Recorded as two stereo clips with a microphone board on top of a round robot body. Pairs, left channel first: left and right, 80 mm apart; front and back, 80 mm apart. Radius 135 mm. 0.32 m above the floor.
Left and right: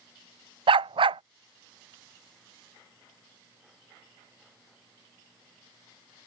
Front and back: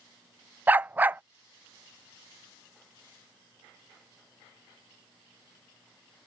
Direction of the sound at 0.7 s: 110° right.